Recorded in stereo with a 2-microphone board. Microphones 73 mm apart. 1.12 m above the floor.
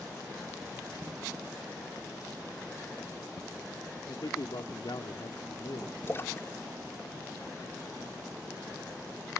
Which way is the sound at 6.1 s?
35° left (ahead or behind).